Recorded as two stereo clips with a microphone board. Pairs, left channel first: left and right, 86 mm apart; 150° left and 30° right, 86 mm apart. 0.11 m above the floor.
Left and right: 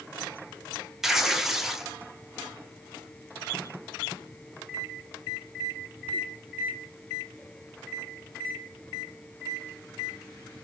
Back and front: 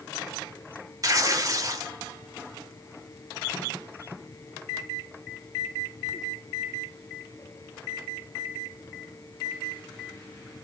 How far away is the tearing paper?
About 0.5 m.